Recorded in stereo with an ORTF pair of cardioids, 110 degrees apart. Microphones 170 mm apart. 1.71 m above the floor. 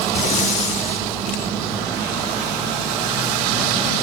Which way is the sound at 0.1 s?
50° left.